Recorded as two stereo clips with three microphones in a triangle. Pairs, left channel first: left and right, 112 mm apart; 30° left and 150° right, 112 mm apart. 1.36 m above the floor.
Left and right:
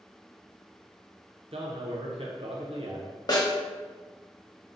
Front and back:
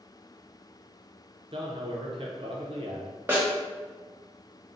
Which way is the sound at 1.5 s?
115° right.